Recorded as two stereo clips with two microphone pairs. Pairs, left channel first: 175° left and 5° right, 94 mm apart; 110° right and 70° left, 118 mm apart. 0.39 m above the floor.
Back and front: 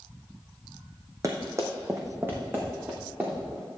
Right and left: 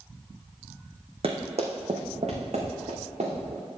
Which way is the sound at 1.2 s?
50° left.